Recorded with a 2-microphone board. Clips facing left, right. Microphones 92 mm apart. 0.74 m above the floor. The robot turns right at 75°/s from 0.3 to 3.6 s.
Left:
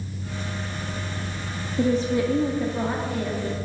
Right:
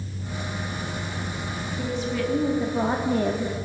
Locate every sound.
1.8 s a woman speaking: 125° left, 1.3 m; by 3.5 s 105° right, 1.3 m